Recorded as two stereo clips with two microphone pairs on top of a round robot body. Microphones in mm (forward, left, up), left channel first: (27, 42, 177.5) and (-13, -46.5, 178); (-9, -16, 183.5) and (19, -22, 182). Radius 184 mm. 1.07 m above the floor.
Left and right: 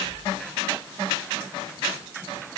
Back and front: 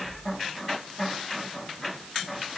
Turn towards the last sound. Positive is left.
No sound to turn to.